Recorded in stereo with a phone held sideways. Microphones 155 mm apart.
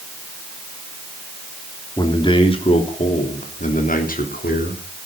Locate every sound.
2.0 s a man speaking: 25° left (ahead or behind), 3.5 m; by 5.1 s 75° left (ahead or behind), 4 m